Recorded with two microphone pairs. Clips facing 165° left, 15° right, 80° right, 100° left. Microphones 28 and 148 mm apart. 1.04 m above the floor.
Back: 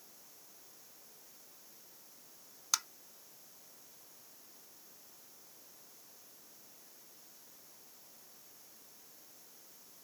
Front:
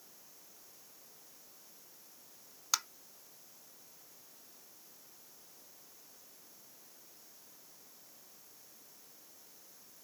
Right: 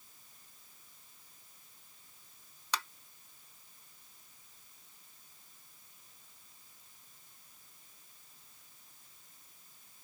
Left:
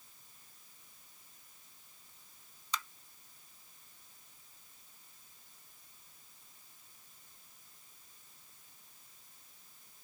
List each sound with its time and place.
2.7 s tapping: 100° right